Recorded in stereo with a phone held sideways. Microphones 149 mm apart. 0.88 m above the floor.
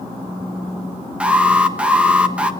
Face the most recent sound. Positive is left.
turn(degrees=-10)  # may be behind; listen again after turning